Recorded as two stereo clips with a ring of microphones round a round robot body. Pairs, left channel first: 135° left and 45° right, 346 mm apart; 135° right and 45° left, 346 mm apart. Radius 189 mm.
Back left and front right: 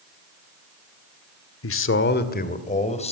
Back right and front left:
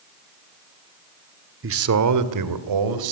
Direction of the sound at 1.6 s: 95° left.